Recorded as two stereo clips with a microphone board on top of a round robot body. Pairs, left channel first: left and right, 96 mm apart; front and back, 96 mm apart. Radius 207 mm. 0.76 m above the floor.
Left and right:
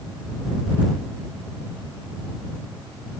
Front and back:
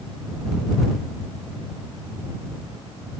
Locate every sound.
Only background noise.